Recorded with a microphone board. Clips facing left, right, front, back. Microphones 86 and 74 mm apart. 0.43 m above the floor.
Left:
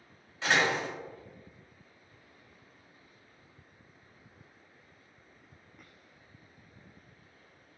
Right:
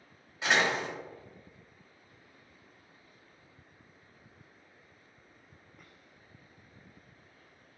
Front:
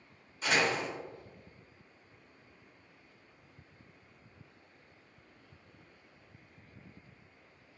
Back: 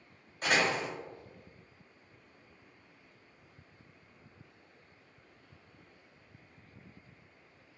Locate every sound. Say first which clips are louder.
0.4 s a door slam: even, back 1 dB; 165° right, 1.6 m